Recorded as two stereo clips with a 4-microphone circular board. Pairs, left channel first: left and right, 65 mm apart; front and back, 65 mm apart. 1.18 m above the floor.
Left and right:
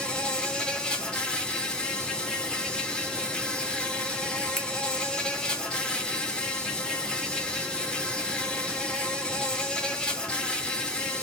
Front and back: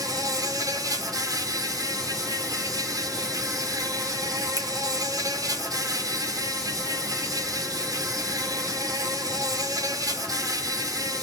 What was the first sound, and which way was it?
An insect, 165° left.